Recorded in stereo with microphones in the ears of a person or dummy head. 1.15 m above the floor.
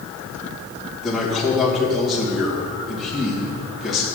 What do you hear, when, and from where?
1.0 s a man speaking: centre (ahead or behind), 1.3 m